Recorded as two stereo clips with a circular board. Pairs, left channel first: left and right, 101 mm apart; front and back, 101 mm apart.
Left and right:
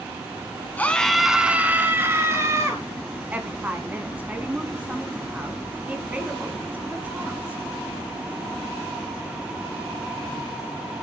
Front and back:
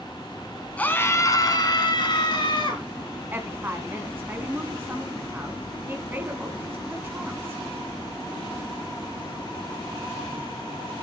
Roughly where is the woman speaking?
Behind right.